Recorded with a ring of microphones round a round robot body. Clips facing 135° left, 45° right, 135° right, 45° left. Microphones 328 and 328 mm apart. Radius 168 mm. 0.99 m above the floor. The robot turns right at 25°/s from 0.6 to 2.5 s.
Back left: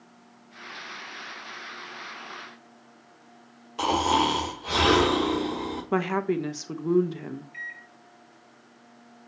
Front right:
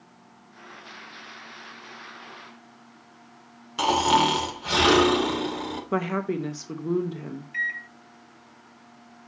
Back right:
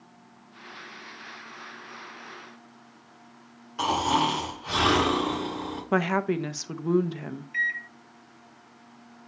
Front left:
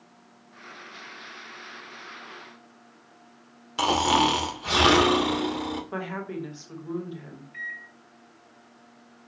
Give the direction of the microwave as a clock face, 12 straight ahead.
3 o'clock.